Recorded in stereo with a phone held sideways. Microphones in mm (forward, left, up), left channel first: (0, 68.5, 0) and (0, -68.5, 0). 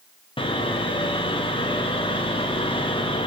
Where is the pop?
No pop in this recording.